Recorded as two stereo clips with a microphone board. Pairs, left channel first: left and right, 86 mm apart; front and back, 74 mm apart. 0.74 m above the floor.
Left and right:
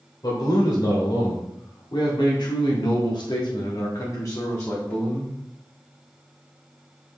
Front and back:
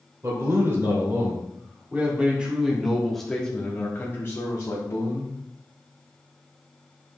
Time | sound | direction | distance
0.2 | a man speaking | 130° left | 2.5 m